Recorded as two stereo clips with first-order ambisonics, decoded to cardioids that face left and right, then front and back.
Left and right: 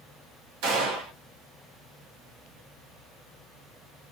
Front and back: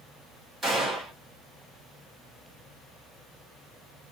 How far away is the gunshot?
About 1.4 m.